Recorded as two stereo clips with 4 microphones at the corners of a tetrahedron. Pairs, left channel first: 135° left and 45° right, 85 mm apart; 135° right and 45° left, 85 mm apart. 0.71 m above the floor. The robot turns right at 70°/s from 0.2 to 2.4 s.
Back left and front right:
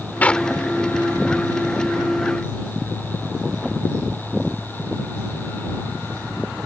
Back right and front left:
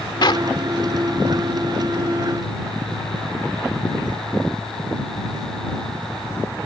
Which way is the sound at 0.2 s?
155° right.